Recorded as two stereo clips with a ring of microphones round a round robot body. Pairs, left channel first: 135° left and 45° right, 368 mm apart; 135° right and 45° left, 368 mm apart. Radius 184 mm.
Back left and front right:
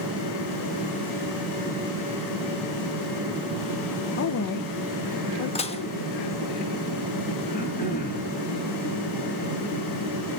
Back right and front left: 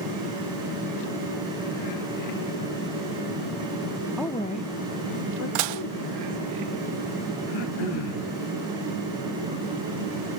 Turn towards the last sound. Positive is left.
turn(degrees=-155)